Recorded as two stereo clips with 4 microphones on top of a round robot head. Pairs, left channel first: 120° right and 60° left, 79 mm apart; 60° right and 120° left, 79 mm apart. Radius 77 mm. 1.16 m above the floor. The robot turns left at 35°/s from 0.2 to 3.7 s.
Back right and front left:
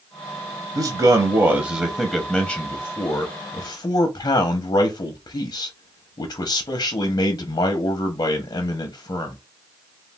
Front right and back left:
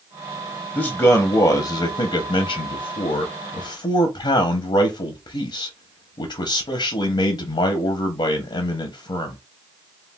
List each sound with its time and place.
0.8 s a man speaking: 25° left, 0.6 m; by 9.4 s 80° right, 0.6 m